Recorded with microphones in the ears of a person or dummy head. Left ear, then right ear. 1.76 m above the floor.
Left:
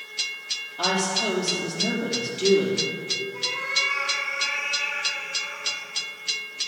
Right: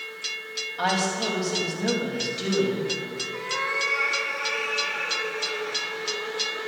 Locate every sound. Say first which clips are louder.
0.8 s a woman speaking: left 1 dB; 45° right (ahead or behind), 3.5 m
3.3 s a cat meowing: even; 55° right (ahead or behind), 1.7 m